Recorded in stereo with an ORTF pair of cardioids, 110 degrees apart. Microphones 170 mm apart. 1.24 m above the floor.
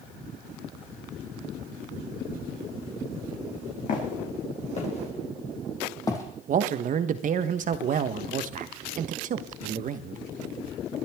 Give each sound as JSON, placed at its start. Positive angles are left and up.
{"t": 3.9, "sound": "footsteps", "azimuth_deg": 55, "distance_m": 4.5}
{"t": 6.5, "sound": "a man speaking", "azimuth_deg": -50, "distance_m": 1.2}